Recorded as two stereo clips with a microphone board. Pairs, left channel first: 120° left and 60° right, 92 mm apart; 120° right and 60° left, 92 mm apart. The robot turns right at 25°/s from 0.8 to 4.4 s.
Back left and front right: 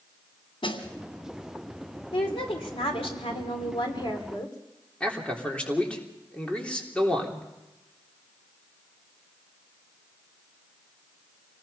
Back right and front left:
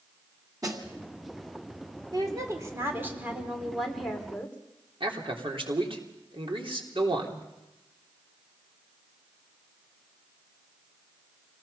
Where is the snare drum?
110° left, 2.5 m.